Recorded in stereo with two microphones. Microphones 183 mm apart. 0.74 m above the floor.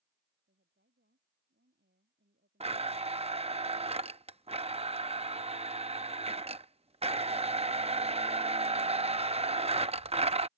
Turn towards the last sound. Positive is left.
turn(degrees=-35)  # may be behind; listen again after turning